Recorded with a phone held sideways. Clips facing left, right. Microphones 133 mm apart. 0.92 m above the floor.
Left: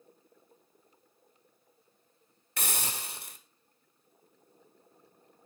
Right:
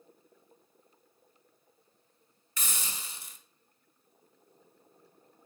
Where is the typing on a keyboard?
I don't hear typing on a keyboard.